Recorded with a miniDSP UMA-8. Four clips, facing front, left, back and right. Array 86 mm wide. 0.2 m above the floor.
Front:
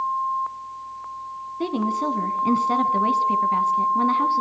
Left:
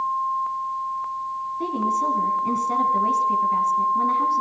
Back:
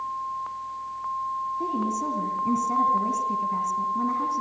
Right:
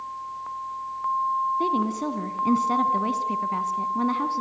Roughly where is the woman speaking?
Ahead right.